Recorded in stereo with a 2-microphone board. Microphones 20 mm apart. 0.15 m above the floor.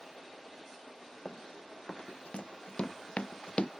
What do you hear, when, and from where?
1.2 s running footsteps: 85° left; by 3.7 s 90° left